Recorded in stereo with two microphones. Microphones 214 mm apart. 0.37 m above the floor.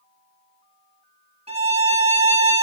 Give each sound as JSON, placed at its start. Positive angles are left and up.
{"t": 1.5, "sound": "a violin", "side_deg": -30, "distance_m": 0.7}